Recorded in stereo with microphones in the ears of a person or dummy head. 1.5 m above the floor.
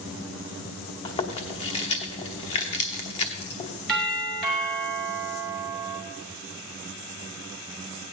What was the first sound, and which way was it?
Chewing, 30° left (ahead or behind).